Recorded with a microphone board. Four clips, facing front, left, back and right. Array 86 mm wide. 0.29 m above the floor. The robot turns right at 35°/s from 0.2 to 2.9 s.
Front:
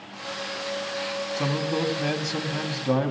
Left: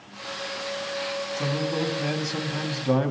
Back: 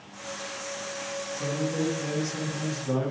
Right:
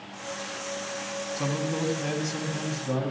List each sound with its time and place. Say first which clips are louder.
1.4 s a man speaking: left 1 dB, front 2 dB; 10° right, 1.8 m; by 3.1 s 45° left, 1.8 m